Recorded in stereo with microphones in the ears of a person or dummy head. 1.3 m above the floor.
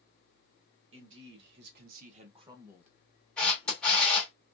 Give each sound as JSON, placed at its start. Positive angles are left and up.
{"t": 0.9, "sound": "a man speaking", "side_deg": -80, "distance_m": 1.1}
{"t": 3.4, "sound": "a camera shutter", "side_deg": 0, "distance_m": 0.9}